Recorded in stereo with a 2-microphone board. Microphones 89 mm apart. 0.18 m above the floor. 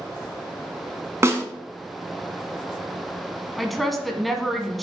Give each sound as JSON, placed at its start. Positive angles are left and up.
{"t": 1.2, "sound": "a snare drum", "side_deg": -30, "distance_m": 1.2}
{"t": 3.6, "sound": "a woman speaking", "side_deg": 0, "distance_m": 1.2}